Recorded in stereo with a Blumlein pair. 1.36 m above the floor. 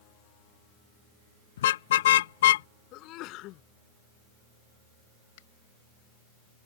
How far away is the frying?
No frying in this recording.